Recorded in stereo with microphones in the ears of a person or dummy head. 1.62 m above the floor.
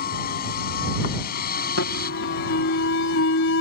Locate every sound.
0.0 s a vehicle: 45° left (ahead or behind)
1.8 s an alarm: 65° left (ahead or behind)